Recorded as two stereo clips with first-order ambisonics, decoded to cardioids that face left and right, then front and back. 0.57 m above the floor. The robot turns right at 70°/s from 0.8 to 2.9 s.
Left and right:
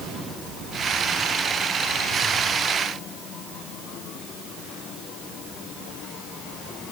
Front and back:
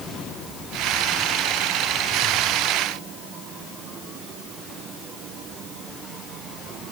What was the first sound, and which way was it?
Only background noise.